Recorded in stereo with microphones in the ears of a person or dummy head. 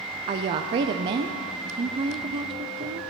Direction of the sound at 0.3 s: 30° right (ahead or behind).